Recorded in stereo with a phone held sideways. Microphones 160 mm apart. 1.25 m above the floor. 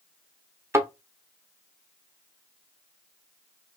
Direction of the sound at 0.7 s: 15° right (ahead or behind).